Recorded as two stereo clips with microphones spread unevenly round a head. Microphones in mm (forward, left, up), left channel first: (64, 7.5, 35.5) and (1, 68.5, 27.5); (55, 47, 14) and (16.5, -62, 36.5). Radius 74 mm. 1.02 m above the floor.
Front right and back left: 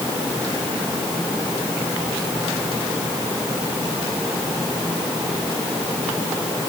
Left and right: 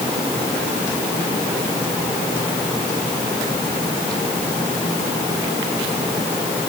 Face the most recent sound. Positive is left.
No sound to turn to.